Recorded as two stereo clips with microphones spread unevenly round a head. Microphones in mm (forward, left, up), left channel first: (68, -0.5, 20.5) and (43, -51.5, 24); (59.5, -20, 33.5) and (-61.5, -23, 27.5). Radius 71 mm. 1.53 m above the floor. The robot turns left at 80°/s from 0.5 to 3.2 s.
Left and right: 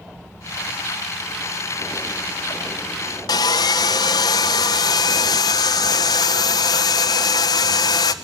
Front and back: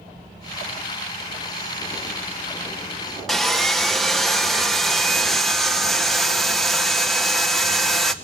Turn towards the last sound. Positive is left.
turn(degrees=90)